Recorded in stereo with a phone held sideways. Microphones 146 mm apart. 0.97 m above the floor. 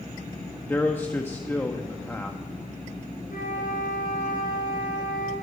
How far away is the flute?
About 5.5 m.